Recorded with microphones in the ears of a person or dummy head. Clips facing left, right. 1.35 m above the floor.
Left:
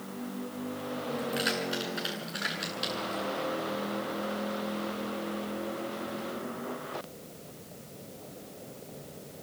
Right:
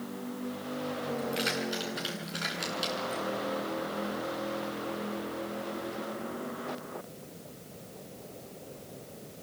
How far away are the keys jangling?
About 9 m.